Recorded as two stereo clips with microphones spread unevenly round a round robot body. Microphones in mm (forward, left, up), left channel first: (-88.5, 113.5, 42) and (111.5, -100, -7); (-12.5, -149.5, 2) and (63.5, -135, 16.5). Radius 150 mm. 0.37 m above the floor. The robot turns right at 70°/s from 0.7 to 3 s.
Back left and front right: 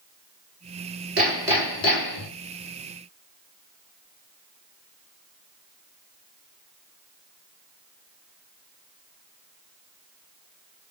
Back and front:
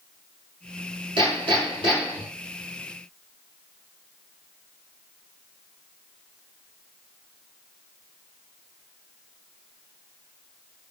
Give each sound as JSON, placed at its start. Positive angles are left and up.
{"t": 1.2, "sound": "hammering", "azimuth_deg": 10, "distance_m": 2.0}